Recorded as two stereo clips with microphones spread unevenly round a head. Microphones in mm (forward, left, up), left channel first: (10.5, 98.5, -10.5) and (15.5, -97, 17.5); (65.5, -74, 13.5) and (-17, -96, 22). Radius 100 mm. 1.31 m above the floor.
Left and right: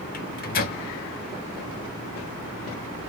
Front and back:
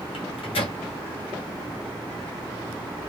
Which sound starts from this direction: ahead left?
A microwave, at 0.1 s.